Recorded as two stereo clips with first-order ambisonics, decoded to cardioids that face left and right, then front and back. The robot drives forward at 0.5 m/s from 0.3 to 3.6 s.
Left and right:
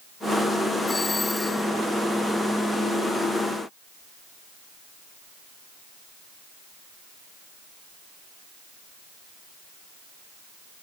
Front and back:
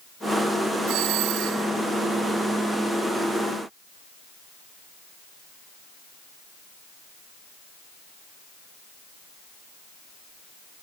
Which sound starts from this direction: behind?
A doorbell, at 0.9 s.